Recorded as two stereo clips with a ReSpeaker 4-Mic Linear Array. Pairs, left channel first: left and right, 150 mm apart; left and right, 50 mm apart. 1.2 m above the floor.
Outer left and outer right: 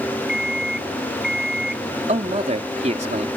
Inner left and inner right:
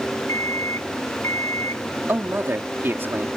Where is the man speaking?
50° right (ahead or behind).